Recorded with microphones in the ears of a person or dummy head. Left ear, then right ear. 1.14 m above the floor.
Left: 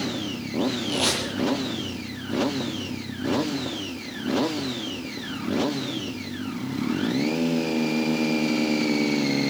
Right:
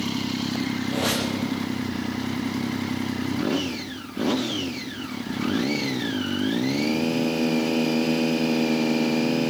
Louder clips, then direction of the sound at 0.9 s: Right 1 dB; 55° left (ahead or behind).